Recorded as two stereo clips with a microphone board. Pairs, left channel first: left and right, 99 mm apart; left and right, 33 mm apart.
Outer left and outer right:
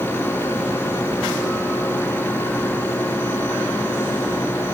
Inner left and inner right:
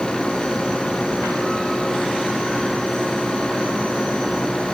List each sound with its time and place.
Only background noise.